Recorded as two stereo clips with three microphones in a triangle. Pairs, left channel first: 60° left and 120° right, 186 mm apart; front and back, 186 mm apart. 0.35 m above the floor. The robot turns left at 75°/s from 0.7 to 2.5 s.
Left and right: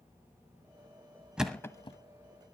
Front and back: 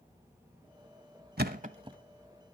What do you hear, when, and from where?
1.4 s a thud: 155° left, 1.0 m; by 2.0 s 110° left, 1.0 m